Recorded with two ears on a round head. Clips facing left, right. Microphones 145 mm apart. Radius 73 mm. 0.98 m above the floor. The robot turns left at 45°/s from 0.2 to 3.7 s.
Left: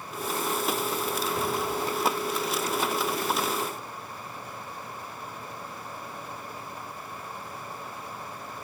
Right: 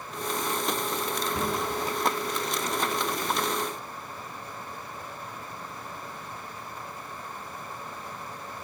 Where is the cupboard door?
75° right (ahead or behind), 7.5 m; by 1.6 s 65° right (ahead or behind), 7.5 m.